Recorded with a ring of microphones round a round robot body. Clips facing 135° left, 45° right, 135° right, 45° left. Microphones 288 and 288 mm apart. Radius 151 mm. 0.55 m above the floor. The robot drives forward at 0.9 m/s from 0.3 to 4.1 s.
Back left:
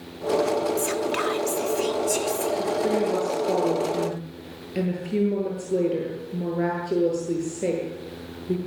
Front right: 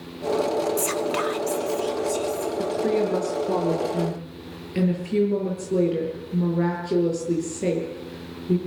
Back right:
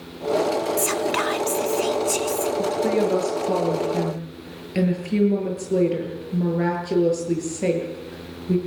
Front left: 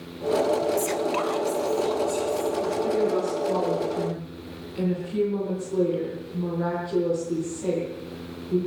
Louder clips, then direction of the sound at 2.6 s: Front right 2 dB, back right 3 dB; 115° right.